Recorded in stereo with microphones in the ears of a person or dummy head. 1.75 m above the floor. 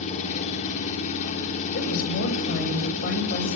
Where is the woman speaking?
60° left (ahead or behind), 9 m.